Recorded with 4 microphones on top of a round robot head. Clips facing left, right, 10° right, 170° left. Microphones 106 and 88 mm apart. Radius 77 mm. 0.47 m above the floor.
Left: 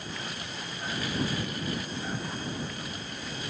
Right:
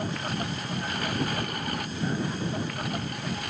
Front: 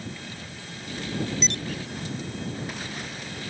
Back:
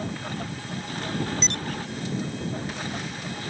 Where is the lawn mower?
130° right; by 3.5 s 125° right.